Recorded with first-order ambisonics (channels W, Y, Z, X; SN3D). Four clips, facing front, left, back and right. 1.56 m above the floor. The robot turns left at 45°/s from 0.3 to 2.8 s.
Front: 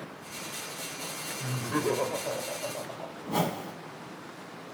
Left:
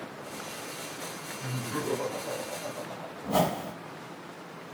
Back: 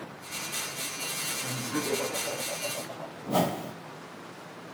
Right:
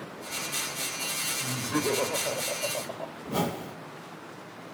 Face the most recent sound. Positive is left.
turn(degrees=135)